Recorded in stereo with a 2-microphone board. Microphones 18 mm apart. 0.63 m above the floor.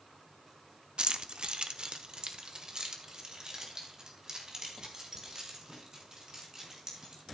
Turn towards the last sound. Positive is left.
turn(degrees=-30)  # may be behind; listen again after turning